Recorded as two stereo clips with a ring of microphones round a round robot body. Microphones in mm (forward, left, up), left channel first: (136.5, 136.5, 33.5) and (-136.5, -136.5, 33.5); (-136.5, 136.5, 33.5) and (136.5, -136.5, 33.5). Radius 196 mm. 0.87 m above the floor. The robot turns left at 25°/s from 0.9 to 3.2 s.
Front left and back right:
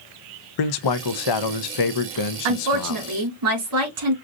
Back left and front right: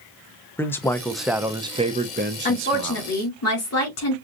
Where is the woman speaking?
155° right, 2.5 m; by 4.2 s 170° right, 2.5 m.